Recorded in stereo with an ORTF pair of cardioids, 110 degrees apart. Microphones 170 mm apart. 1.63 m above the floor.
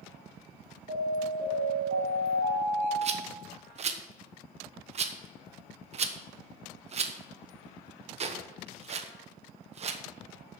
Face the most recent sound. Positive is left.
turn(degrees=-40)